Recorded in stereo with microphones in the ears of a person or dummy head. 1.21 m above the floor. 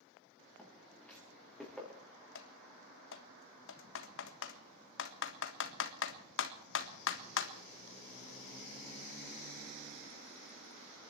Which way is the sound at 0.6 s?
5° left (ahead or behind).